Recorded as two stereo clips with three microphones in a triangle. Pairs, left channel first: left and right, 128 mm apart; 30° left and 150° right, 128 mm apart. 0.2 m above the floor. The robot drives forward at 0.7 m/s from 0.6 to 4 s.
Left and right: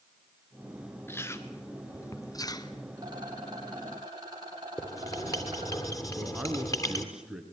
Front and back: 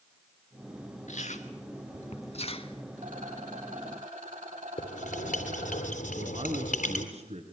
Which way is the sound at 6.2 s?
175° right.